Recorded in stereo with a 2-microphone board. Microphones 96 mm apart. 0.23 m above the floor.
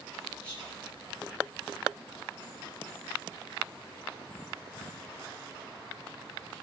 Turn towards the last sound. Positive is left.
turn(degrees=15)  # may be behind; listen again after turning